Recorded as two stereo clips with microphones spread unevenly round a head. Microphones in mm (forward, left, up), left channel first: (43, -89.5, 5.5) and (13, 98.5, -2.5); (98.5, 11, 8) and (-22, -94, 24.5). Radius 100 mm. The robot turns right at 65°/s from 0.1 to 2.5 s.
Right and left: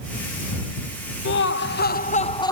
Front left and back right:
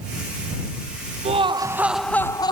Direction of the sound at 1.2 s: 95° right.